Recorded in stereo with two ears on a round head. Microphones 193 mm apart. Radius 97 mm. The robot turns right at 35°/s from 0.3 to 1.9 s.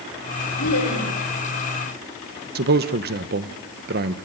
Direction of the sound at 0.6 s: 70° left (ahead or behind).